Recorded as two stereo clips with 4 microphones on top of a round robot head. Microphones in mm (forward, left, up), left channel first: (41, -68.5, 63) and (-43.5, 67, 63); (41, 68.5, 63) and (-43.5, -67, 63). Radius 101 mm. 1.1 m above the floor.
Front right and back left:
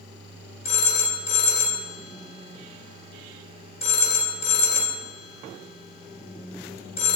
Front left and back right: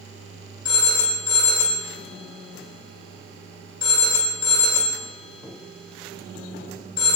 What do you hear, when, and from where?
0.7 s a phone ringing: 5° right, 3.5 m